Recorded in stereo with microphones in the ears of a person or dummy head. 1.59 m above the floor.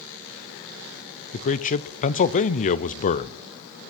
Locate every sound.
1.3 s a man speaking: 40° left (ahead or behind), 0.7 m